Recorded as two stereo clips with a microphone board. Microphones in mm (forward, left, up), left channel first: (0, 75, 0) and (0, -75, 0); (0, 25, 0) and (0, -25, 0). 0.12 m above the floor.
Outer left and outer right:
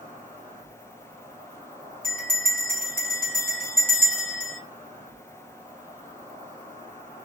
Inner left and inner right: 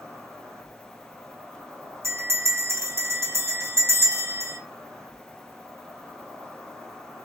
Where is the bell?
70° right (ahead or behind), 1.8 m.